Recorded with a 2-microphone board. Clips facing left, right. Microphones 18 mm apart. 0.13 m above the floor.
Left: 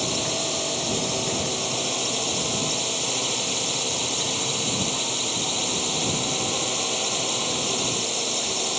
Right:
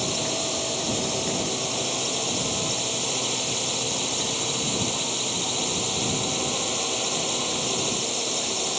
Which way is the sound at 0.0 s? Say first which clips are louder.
Left 1 dB; 5° left (ahead or behind).